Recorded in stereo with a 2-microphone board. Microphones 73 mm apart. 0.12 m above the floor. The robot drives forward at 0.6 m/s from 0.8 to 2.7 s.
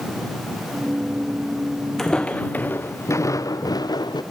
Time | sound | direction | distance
2.0 | footsteps | 5° left (ahead or behind) | 0.6 m